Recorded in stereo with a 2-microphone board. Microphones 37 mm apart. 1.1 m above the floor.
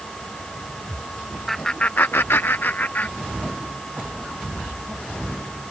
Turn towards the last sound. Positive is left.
turn(degrees=45)  # may be behind; listen again after turning